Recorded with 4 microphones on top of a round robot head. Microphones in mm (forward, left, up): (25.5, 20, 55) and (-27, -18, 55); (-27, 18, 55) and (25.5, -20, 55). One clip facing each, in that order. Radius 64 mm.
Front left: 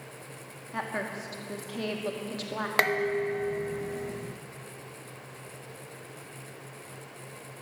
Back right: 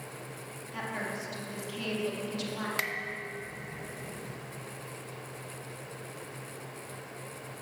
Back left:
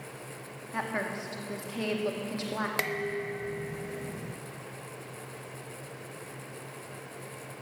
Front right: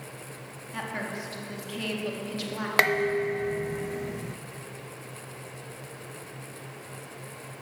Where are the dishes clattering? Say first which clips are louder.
Front left 9 dB, front right 8 dB; straight ahead, 0.5 m.